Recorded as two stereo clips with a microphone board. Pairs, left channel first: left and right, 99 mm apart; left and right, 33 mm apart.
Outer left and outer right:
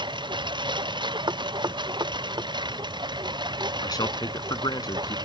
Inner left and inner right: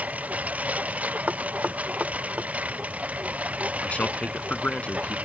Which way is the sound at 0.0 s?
50° right (ahead or behind).